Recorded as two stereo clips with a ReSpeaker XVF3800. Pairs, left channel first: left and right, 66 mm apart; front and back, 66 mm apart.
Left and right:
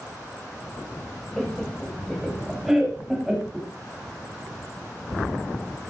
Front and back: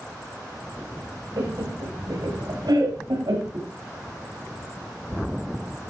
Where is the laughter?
Straight behind, 6 m; by 3.7 s 170° right, 8 m.